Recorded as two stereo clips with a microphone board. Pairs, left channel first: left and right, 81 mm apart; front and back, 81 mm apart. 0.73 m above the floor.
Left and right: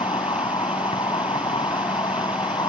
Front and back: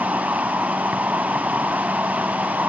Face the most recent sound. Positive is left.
turn(degrees=115)